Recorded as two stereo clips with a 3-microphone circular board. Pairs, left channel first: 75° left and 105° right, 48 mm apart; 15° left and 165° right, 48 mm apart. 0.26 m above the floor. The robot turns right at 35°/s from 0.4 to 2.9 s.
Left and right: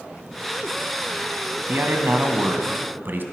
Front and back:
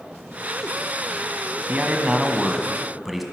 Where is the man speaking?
120° right, 1.6 m; by 3.2 s 75° right, 1.6 m.